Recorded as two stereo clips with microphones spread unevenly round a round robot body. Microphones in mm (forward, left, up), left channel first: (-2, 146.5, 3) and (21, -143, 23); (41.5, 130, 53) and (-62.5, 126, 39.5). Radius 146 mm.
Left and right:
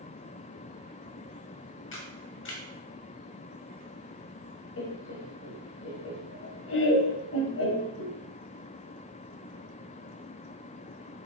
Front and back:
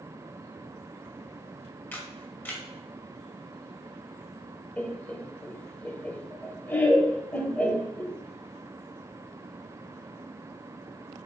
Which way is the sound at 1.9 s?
75° left.